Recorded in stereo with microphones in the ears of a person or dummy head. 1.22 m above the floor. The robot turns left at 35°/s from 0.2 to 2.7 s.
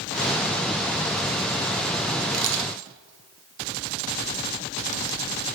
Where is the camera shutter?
55° right (ahead or behind), 1.4 m; by 2.7 s 70° right (ahead or behind), 1.4 m.